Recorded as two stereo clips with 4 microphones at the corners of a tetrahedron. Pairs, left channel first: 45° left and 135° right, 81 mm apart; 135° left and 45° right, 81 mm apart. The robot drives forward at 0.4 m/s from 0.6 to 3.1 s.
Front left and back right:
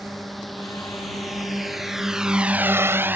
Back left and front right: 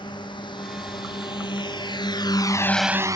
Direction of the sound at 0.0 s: 135° left.